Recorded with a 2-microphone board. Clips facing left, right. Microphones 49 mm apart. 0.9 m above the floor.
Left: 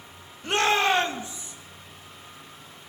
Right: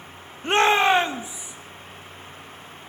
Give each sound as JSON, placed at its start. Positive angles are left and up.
{"t": 0.4, "sound": "a shout", "side_deg": -30, "distance_m": 1.0}